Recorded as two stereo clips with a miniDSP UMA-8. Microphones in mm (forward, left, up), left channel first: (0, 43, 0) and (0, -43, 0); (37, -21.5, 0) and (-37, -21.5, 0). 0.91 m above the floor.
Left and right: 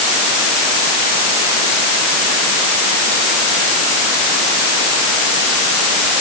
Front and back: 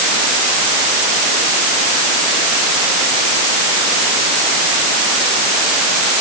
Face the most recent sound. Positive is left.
No sound to turn to.